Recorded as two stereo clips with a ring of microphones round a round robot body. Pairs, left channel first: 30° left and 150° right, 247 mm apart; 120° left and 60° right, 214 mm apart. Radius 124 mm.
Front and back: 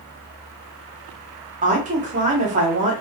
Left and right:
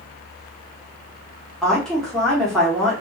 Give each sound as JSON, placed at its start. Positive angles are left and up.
{"t": 1.6, "sound": "a woman speaking", "azimuth_deg": -155, "distance_m": 1.1}